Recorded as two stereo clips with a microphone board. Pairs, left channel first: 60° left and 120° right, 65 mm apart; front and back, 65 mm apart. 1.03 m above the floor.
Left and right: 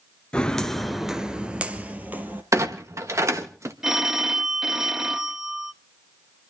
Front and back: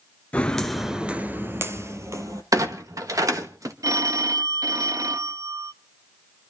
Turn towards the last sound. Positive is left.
turn(degrees=160)